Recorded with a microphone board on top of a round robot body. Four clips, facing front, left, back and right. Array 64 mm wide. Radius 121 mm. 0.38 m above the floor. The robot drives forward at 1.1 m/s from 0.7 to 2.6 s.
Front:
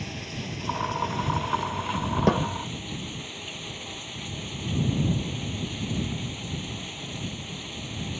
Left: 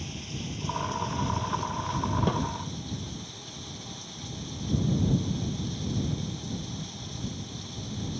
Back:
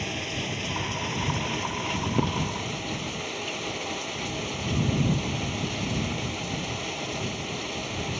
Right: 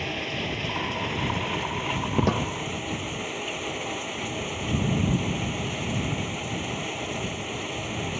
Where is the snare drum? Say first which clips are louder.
Right 3 dB, front 8 dB; 15° right.